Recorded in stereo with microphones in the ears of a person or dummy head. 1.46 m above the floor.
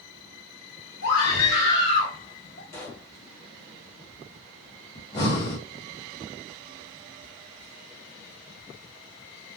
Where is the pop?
20° left (ahead or behind), 1.2 m.